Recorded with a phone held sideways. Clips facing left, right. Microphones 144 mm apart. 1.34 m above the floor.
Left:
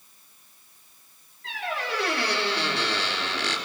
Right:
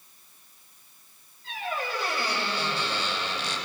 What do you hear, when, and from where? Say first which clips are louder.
1.4 s a squeak: left 1 dB; 75° left (ahead or behind), 4.5 m